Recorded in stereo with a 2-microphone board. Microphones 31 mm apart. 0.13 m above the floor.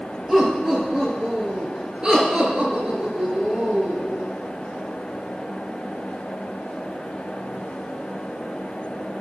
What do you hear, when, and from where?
0.3 s laughter: 15° right (ahead or behind), 3.5 m; by 4.2 s 50° right (ahead or behind), 2.5 m